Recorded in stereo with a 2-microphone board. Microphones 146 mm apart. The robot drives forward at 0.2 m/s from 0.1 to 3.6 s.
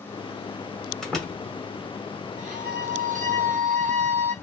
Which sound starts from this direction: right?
A violin, at 2.4 s.